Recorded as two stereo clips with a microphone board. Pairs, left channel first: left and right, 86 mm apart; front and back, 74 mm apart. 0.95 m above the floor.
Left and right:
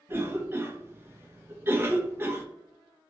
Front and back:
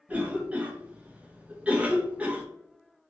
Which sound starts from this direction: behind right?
A cough, at 0.1 s.